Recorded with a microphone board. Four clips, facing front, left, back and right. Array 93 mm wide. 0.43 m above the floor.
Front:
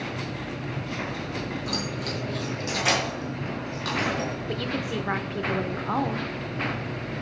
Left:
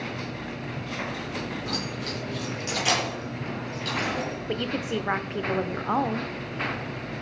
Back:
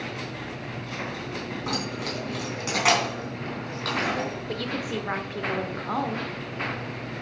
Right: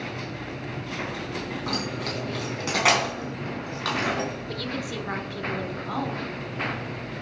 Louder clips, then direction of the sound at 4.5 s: Left 3 dB, front 1 dB; 80° left.